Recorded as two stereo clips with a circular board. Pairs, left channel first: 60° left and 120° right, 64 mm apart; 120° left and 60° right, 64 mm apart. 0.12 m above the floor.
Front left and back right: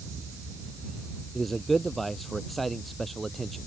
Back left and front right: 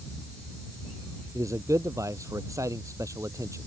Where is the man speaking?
30° right.